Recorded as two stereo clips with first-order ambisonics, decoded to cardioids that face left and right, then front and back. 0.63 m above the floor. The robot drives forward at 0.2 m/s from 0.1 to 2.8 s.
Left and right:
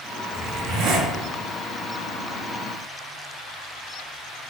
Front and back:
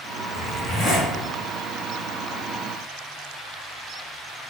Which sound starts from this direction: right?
A zipper, at 0.3 s.